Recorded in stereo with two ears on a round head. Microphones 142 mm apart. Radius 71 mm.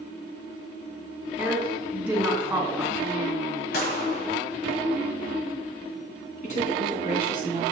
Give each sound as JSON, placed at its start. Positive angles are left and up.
{"t": 1.4, "sound": "a woman speaking", "side_deg": -10, "distance_m": 3.0}
{"t": 3.7, "sound": "a gunshot", "side_deg": 65, "distance_m": 1.4}
{"t": 6.4, "sound": "a woman speaking", "side_deg": 55, "distance_m": 3.0}